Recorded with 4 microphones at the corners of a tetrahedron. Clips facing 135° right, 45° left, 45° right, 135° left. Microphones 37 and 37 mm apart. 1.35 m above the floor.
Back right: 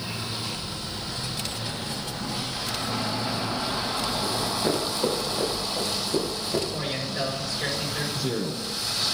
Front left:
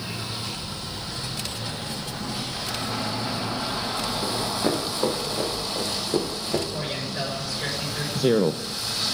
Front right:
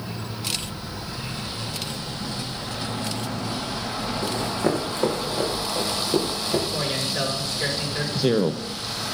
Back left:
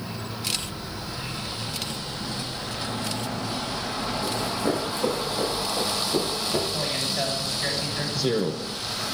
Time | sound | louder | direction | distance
4.2 | running footsteps | front left 2 dB, front right 3 dB | 5° right | 6.5 m
6.7 | a man speaking | even, front right 1 dB | 35° right | 7.5 m
8.2 | a man speaking | front left 8 dB, front right 4 dB | 20° left | 0.7 m